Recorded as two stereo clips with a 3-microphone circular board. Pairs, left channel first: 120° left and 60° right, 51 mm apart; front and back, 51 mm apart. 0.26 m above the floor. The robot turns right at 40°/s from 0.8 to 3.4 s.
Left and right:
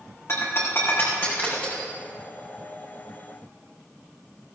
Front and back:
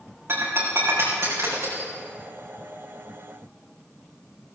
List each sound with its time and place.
0.3 s breaking glass: 145° left, 4.5 m; by 1.9 s 170° right, 4.5 m